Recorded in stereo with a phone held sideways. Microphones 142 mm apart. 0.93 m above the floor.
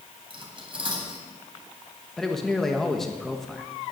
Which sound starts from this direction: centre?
A man speaking, at 2.2 s.